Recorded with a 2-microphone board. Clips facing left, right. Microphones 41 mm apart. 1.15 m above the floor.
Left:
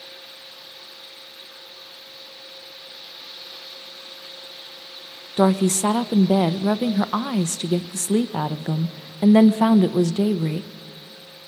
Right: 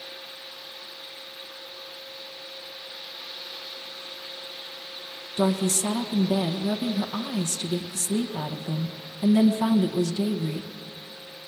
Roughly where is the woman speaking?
Left.